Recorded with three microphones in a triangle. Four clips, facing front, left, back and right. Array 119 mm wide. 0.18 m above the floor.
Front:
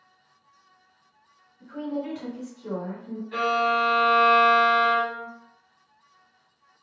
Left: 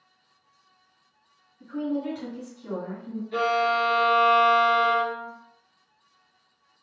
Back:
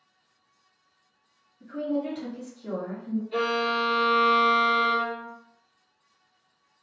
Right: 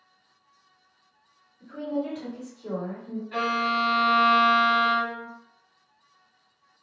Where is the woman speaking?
15° left, 1.9 m.